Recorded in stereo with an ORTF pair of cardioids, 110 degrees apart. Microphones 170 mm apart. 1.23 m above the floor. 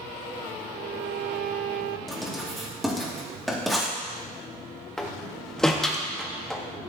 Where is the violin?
60° right, 0.5 m.